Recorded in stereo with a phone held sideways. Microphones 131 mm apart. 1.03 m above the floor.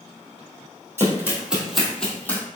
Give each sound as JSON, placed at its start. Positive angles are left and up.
{"t": 1.0, "sound": "running footsteps", "side_deg": -20, "distance_m": 1.7}